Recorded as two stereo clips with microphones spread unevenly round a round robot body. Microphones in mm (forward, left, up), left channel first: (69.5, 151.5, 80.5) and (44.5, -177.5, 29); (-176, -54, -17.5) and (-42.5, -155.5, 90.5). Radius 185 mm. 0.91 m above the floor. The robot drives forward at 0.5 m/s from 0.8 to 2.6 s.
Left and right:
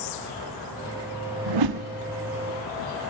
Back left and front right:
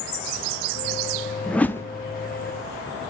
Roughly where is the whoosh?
Behind right.